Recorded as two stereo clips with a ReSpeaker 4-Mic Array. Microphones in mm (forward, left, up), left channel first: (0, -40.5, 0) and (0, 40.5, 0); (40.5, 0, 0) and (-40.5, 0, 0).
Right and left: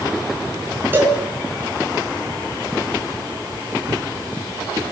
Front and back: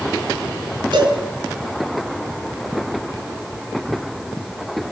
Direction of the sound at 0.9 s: 155° left.